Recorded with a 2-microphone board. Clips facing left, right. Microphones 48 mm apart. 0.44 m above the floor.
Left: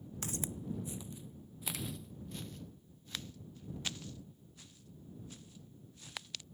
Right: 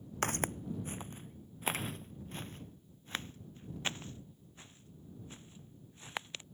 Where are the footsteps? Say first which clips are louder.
Right 7 dB; 55° right (ahead or behind); by 6.4 s 25° right (ahead or behind).